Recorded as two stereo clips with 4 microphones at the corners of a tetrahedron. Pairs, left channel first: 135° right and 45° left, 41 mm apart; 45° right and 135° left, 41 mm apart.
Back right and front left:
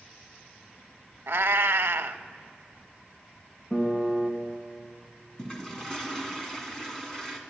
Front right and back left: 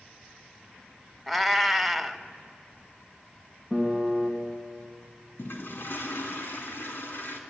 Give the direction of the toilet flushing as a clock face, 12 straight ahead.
2 o'clock.